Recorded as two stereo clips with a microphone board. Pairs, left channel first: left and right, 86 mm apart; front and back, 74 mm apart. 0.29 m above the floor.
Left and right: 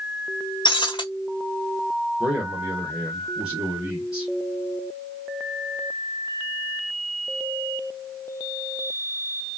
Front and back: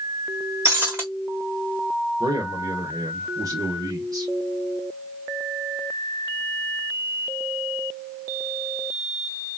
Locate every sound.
0.7 s breaking glass: 125° left, 1.3 m
2.2 s a man speaking: 165° right, 1.4 m